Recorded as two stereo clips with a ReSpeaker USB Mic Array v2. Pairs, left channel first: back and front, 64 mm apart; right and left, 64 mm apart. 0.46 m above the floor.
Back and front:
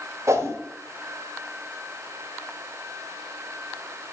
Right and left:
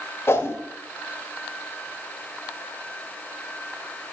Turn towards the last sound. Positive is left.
turn(degrees=-40)